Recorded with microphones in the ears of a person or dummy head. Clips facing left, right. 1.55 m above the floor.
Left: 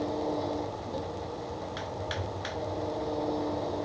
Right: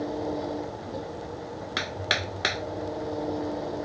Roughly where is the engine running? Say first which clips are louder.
Right 1 dB; centre.